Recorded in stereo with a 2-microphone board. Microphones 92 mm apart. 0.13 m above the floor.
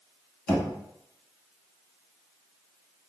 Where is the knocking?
10° left (ahead or behind), 0.8 m.